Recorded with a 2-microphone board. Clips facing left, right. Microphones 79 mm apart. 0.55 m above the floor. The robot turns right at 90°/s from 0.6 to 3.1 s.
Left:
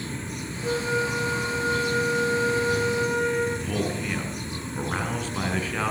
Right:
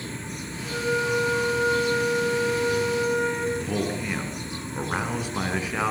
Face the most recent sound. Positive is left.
turn(degrees=-10)  # may be behind; listen again after turning